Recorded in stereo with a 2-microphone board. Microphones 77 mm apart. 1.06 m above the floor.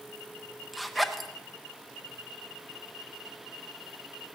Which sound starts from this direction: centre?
A zipper, at 0.7 s.